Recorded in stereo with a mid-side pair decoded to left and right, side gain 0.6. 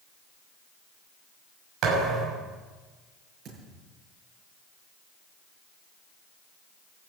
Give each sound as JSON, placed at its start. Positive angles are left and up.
{"t": 1.8, "sound": "a thud", "azimuth_deg": -60, "distance_m": 6.0}
{"t": 3.5, "sound": "a thud", "azimuth_deg": -50, "distance_m": 8.5}